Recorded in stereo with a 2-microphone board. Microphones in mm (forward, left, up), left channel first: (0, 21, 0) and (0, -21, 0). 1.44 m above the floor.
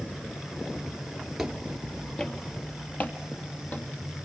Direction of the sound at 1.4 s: Centre (ahead or behind).